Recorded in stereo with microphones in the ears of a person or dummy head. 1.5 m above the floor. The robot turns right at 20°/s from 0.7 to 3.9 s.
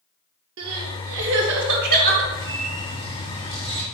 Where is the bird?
75° right, 1.2 m; by 3.9 s 45° right, 1.2 m.